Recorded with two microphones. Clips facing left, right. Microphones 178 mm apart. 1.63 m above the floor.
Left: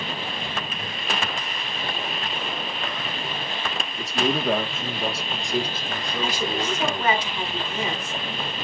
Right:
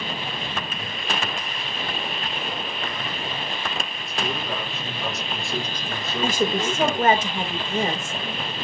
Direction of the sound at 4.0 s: 75° left (ahead or behind).